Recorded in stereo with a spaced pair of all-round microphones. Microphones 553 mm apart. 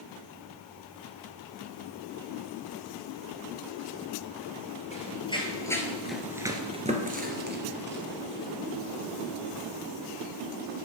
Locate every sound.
4.9 s running footsteps: 10° left (ahead or behind), 2.0 m; by 9.8 s 20° right (ahead or behind), 3.5 m